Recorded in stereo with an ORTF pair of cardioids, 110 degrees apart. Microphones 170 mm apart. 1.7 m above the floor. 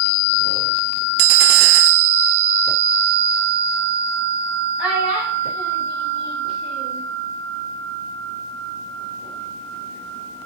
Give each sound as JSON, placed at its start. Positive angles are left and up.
{"t": 4.8, "sound": "a child speaking", "azimuth_deg": -5, "distance_m": 4.5}